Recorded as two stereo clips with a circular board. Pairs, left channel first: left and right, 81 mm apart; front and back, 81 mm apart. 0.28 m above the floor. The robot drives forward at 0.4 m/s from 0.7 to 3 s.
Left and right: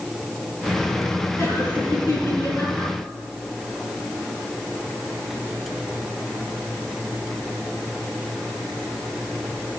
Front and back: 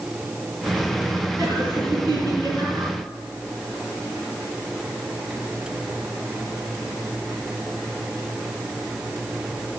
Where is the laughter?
150° left, 6.5 m; by 2.9 s 155° left, 7 m.